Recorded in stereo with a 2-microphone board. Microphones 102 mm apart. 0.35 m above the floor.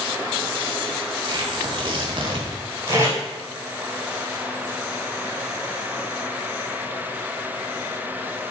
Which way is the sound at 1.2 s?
60° right (ahead or behind).